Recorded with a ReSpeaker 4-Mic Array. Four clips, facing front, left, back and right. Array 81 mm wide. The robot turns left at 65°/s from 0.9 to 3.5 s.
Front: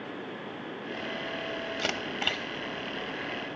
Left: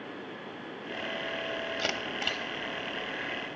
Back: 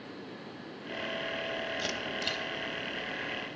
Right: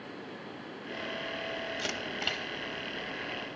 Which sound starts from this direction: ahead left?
A camera shutter, at 1.8 s.